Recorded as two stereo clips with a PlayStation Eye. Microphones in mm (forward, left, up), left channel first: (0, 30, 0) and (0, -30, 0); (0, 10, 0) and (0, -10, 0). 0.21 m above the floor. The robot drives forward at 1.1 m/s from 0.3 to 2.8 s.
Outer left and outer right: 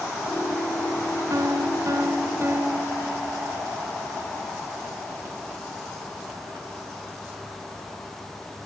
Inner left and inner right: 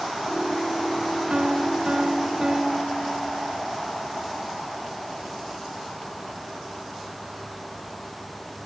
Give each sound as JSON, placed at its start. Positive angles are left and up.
{"t": 1.3, "sound": "a piano", "side_deg": -65, "distance_m": 1.3}